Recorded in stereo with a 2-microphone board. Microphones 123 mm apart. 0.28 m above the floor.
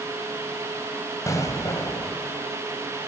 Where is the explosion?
25° left (ahead or behind), 1.3 m.